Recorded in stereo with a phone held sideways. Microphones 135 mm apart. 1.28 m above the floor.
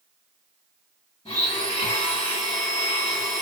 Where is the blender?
55° left (ahead or behind), 3 m.